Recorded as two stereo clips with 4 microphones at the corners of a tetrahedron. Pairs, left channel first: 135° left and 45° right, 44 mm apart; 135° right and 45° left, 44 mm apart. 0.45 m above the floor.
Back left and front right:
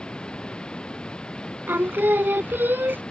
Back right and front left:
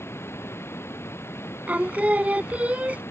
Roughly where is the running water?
Behind right.